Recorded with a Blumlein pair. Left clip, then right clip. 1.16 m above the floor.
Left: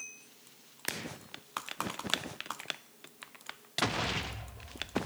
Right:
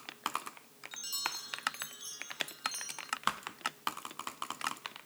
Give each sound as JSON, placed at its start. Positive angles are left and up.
{"t": 0.9, "sound": "a chime", "azimuth_deg": -45}